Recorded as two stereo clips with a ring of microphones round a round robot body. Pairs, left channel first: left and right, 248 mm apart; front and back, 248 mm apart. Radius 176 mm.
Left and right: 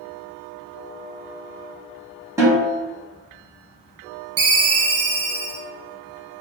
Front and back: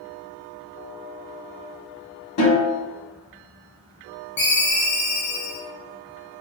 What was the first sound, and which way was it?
A snare drum, 10° right.